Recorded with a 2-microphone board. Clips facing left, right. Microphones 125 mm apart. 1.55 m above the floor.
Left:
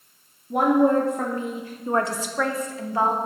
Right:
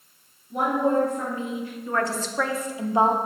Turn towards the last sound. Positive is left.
turn(degrees=-25)  # may be behind; listen again after turning